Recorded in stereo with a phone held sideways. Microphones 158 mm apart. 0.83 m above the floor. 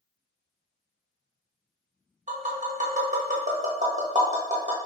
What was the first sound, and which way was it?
Tapping, 50° right (ahead or behind).